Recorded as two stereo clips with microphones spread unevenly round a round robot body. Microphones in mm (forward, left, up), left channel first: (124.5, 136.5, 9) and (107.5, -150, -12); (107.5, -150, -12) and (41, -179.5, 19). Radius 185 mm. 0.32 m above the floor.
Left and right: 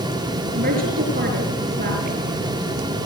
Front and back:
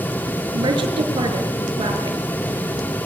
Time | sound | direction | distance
0.5 | a woman speaking | 160° right | 6 m